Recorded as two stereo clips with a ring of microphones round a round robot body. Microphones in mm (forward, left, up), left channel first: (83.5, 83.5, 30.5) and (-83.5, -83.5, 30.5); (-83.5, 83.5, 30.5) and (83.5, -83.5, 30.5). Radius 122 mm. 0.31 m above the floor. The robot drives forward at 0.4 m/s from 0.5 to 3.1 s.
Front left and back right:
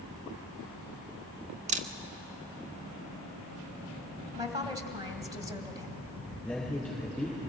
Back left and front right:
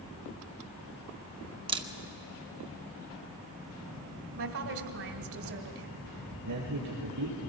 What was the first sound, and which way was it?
A camera shutter, 100° right.